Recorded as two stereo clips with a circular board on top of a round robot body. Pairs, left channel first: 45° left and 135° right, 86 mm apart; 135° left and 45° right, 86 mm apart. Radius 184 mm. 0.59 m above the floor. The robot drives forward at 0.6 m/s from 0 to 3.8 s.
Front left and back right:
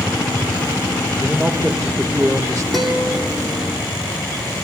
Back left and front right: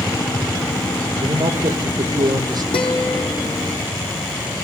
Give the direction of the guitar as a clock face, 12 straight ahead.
8 o'clock.